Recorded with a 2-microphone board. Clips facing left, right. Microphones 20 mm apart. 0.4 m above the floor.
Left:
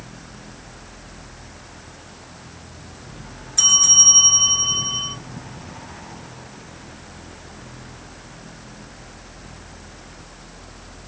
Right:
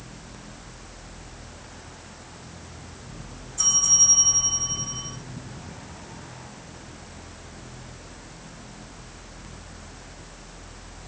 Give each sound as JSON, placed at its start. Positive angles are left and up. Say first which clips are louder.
{"t": 3.6, "sound": "a bell", "louder": "left 6 dB", "side_deg": 75, "distance_m": 1.7}